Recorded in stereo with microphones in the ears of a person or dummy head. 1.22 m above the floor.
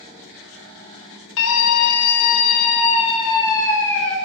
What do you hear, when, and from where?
1.4 s a scream: 75° left (ahead or behind), 2 m; by 4.2 s 5° left (ahead or behind), 2.5 m